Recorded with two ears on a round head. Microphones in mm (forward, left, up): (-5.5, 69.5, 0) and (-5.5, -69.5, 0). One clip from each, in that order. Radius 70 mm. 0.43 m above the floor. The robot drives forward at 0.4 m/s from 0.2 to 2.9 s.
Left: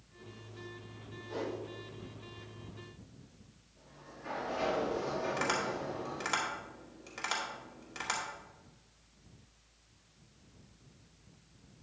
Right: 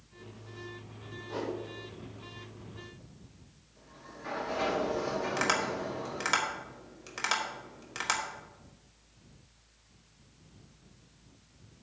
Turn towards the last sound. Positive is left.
turn(degrees=-25)  # may be behind; listen again after turning